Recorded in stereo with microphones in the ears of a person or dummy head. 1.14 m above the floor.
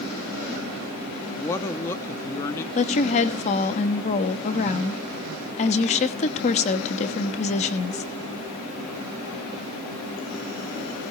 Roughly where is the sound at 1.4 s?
Centre.